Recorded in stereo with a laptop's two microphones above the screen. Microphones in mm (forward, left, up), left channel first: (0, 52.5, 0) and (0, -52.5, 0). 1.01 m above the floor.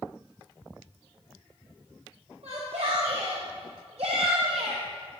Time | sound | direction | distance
2.4 | a shout | 80° right | 5.5 m